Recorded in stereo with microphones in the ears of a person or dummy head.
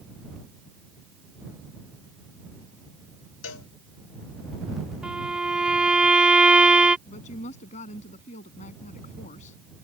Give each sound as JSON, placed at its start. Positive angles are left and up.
{"t": 3.4, "sound": "a cowbell", "side_deg": 85}
{"t": 5.0, "sound": "a violin", "side_deg": 0}
{"t": 7.1, "sound": "a woman speaking", "side_deg": 40}